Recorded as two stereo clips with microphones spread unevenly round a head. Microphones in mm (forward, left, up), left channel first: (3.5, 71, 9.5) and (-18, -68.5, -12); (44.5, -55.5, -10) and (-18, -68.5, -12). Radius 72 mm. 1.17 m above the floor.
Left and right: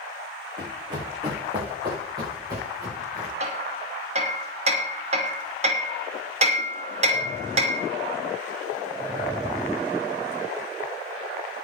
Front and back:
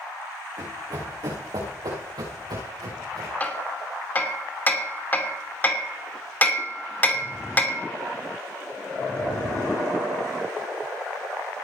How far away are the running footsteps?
About 5 m.